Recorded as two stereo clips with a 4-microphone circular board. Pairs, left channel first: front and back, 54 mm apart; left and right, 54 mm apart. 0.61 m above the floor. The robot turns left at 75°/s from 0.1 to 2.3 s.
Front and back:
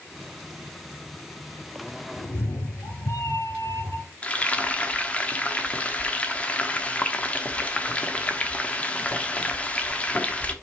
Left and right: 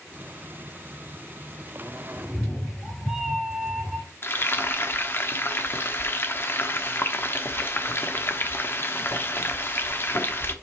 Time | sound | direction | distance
2.2 | a cat meowing | 5° left | 1.5 m
4.2 | frying | 60° left | 0.9 m